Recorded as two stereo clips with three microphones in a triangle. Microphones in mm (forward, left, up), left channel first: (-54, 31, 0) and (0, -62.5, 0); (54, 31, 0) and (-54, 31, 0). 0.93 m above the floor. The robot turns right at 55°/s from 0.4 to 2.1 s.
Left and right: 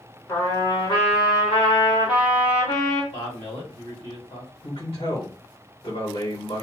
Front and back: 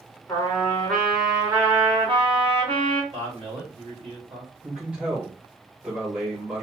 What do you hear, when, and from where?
0.3 s a trumpet: 55° left, 1.4 m; by 3.0 s 150° left, 1.4 m
3.1 s a man speaking: 150° left, 1.9 m
4.6 s a man speaking: 105° left, 1.3 m